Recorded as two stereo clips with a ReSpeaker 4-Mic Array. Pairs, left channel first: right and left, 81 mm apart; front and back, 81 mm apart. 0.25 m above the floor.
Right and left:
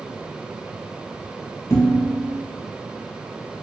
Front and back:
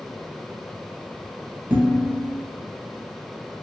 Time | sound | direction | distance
1.7 | dishes clattering | 120° right | 1.2 m